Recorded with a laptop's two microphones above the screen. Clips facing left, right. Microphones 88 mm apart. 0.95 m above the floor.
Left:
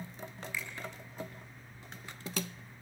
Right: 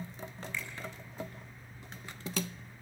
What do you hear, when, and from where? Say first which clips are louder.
0.5 s a finger snap: even; 5° left (ahead or behind), 7 m